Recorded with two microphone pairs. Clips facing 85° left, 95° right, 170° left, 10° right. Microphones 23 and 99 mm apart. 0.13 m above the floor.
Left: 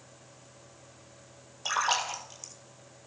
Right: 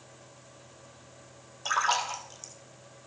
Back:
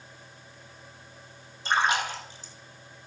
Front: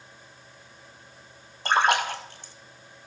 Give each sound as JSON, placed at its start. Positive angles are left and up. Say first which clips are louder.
{"t": 1.6, "sound": "a splash", "louder": "right 1 dB, front 3 dB", "azimuth_deg": 5, "distance_m": 1.2}